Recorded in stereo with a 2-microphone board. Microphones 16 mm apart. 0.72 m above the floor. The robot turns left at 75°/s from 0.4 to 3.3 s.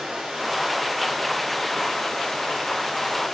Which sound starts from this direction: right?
Running water, at 0.0 s.